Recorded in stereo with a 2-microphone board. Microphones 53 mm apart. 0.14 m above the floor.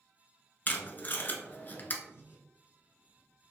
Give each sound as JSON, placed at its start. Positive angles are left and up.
{"t": 0.7, "sound": "tape being pulled", "side_deg": 40, "distance_m": 0.7}
{"t": 2.0, "sound": "breathing", "side_deg": 45, "distance_m": 0.9}